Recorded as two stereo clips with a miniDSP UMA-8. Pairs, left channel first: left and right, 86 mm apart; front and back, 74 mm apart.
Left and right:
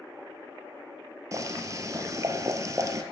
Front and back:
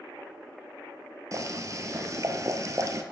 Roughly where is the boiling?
Behind right.